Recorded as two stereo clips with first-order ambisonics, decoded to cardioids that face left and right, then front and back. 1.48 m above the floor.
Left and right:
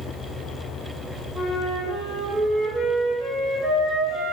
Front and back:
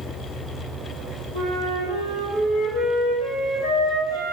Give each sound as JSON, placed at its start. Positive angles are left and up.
{"t": 1.3, "sound": "a flute", "azimuth_deg": 5, "distance_m": 1.2}